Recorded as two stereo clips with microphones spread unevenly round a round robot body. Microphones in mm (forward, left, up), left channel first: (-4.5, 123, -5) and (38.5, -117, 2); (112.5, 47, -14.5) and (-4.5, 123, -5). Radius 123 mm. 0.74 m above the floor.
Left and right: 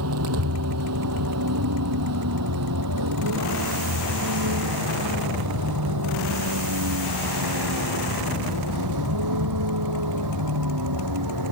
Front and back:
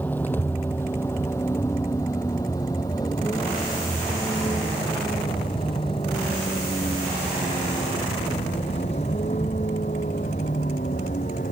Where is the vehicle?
115° right; by 11.5 s 95° right.